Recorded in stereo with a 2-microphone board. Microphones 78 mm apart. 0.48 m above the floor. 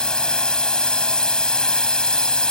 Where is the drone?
10° left (ahead or behind).